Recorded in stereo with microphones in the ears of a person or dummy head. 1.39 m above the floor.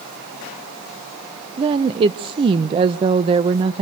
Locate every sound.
1.6 s a woman speaking: 30° right (ahead or behind), 0.6 m